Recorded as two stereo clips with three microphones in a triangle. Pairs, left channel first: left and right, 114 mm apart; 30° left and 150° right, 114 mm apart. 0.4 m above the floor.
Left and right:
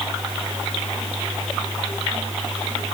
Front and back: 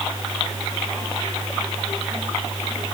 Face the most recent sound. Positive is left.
No sound to turn to.